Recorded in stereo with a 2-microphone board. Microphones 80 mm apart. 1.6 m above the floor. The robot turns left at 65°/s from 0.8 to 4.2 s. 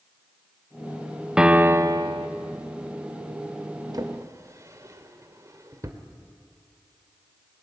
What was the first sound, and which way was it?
A piano, 10° right.